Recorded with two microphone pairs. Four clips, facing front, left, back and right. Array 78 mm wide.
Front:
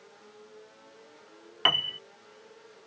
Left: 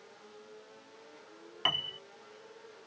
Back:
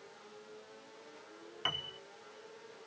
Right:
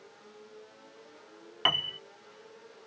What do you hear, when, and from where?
1.6 s a piano: 30° right